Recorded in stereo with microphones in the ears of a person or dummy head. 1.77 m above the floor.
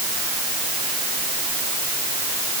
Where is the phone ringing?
No phone ringing in this recording.